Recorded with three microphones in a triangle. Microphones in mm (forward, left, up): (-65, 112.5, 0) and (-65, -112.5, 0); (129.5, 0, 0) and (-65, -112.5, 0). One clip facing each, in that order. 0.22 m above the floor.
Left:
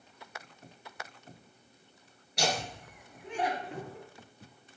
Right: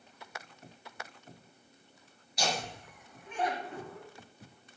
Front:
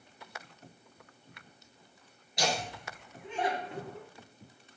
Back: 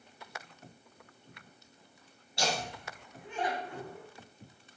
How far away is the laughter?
About 3.5 m.